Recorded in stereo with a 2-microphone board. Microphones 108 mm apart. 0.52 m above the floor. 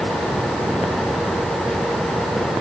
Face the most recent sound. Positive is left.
No sound to turn to.